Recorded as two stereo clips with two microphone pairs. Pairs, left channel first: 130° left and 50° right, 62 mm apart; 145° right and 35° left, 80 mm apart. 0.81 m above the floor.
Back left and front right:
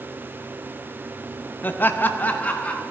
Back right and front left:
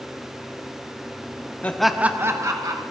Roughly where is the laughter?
Behind.